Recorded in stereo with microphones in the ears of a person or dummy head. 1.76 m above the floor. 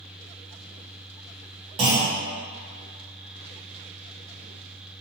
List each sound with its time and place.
1.8 s a clunk: 30° right (ahead or behind), 1.0 m